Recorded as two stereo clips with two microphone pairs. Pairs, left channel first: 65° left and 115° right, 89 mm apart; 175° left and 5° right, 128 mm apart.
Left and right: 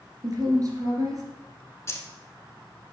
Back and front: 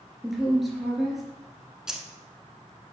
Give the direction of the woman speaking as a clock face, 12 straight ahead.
3 o'clock.